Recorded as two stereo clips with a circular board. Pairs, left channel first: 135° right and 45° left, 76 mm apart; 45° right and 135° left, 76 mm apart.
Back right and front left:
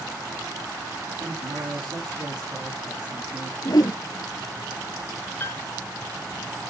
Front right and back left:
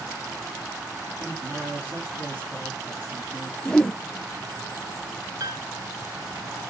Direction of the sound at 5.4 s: 165° left.